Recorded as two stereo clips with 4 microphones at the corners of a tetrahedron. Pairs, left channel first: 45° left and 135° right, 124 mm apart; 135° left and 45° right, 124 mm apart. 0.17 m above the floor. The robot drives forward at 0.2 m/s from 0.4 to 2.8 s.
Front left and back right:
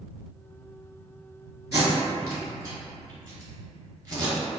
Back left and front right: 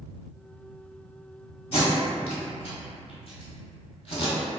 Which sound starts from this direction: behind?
Tape being pulled, at 1.7 s.